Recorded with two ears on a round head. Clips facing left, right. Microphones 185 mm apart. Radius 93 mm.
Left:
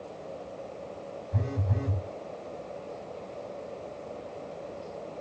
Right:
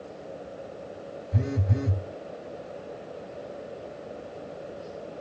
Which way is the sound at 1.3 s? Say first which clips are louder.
Right 5 dB; 25° right (ahead or behind).